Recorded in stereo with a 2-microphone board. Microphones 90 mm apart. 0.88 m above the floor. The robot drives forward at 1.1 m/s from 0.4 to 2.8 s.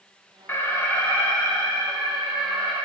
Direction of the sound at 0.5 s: 25° left (ahead or behind).